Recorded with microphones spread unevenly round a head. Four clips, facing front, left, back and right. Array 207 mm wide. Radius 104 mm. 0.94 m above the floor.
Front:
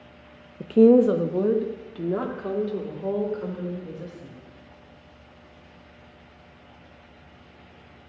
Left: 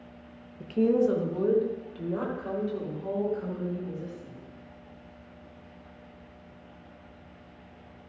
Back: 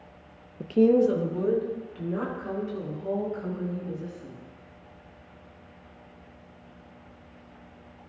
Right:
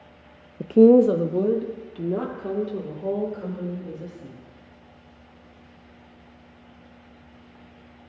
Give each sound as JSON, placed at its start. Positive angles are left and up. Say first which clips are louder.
{"t": 0.6, "sound": "a woman speaking", "louder": "right 10 dB, front 5 dB", "azimuth_deg": -80, "distance_m": 0.5}